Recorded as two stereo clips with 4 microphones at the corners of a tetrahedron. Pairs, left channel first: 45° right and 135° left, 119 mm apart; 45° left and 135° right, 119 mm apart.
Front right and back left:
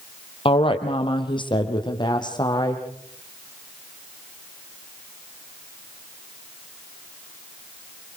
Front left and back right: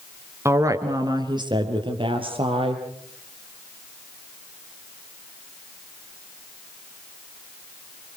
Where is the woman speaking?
70° right, 3 m; by 2.8 s 100° right, 6 m.